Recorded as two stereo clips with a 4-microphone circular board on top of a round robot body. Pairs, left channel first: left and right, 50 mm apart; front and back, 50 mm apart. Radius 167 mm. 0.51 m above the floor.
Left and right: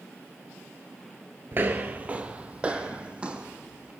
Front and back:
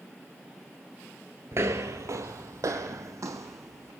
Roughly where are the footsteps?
Behind right.